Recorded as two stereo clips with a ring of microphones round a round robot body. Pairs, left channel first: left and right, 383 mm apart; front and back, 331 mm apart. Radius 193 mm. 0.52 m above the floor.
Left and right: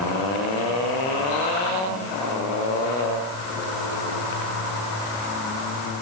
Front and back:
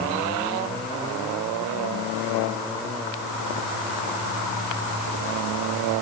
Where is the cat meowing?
No cat meowing in this recording.